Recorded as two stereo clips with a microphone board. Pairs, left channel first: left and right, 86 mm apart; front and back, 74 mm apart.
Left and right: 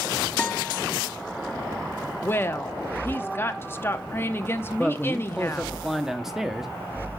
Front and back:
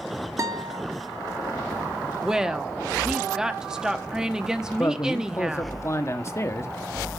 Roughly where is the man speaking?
Ahead.